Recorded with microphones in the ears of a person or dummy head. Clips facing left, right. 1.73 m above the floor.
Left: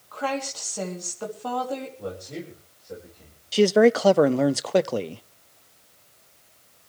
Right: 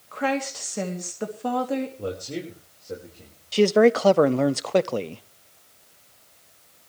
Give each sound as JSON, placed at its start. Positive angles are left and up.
{"t": 0.1, "sound": "a woman speaking", "side_deg": -25, "distance_m": 3.0}
{"t": 2.0, "sound": "a man speaking", "side_deg": -50, "distance_m": 5.0}
{"t": 3.5, "sound": "a man speaking", "side_deg": 0, "distance_m": 0.6}